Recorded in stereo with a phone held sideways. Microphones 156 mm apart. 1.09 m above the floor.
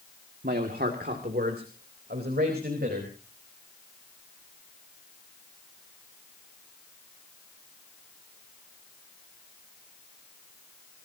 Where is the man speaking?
80° right, 1.8 m; by 3.1 s 90° right, 5 m.